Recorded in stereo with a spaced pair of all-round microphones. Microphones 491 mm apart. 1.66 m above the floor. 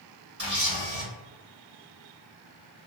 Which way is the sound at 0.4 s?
35° right (ahead or behind).